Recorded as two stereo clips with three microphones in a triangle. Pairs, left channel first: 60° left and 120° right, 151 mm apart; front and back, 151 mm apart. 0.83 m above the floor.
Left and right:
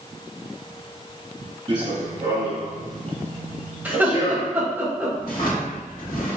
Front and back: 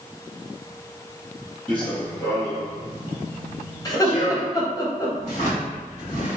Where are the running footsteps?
75° right, 1.2 m; by 4.6 s 35° left, 1.4 m.